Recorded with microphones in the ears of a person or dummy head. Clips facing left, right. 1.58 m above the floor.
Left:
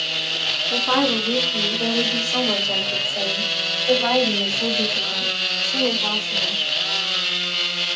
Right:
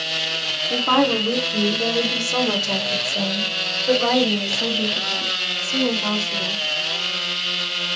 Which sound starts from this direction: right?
A woman speaking, at 0.7 s.